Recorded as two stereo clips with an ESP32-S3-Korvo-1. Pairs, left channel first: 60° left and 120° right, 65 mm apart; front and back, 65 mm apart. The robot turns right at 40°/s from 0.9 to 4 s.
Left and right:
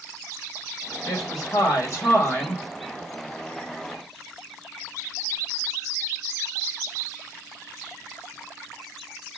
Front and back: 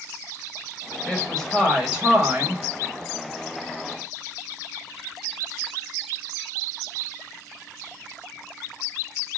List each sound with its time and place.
1.1 s a woman speaking: 65° left, 1.8 m; by 2.6 s 130° left, 1.8 m